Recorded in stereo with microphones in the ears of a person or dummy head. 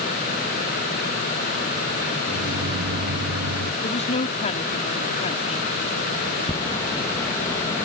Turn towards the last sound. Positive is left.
turn(degrees=10)  # may be behind; listen again after turning